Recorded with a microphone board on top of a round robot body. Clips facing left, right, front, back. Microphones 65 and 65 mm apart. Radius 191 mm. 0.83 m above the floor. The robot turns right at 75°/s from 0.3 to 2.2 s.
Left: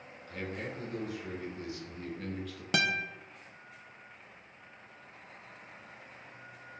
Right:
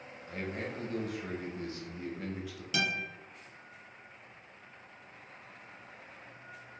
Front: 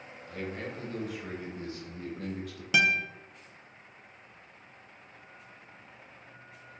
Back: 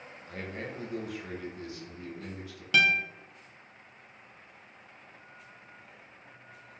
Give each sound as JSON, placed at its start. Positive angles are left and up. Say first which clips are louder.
{"t": 0.3, "sound": "a man speaking", "louder": "right 1 dB, front 1 dB", "azimuth_deg": -150, "distance_m": 1.2}
{"t": 2.7, "sound": "a guitar", "louder": "left 3 dB, back 1 dB", "azimuth_deg": 75, "distance_m": 0.6}